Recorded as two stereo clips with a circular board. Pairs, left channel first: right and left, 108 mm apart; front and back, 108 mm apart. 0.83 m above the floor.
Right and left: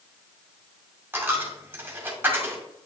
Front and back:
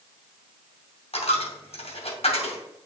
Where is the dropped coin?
20° left, 2.5 m.